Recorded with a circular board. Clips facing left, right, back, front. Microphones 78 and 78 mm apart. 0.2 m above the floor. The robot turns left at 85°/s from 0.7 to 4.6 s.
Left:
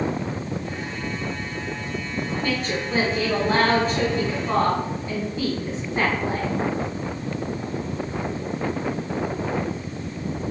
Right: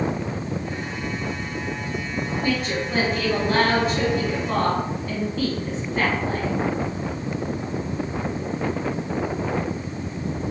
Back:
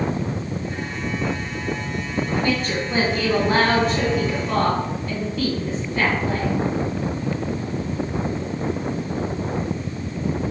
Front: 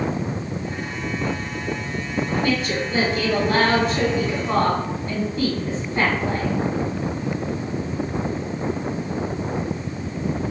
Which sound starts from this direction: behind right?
A woman speaking, at 2.4 s.